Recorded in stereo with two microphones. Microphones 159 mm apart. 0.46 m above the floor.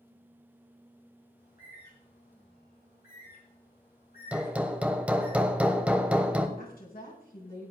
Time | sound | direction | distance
1.4 | a bird | 80° left | 4 m
4.3 | hammering | 10° right (ahead or behind) | 1.1 m
6.6 | a woman speaking | 70° left (ahead or behind) | 4 m